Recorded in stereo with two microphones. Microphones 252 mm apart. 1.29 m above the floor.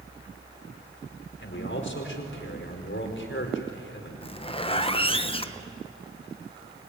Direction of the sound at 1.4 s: 55° left (ahead or behind).